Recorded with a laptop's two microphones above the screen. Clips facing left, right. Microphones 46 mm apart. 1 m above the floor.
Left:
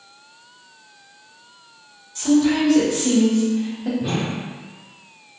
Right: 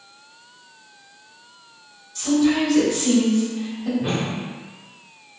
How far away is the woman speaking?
About 1.7 m.